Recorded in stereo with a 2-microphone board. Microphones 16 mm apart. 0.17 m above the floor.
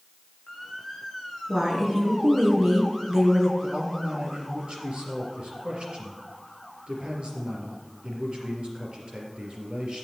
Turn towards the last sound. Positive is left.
turn(degrees=-65)  # may be behind; listen again after turning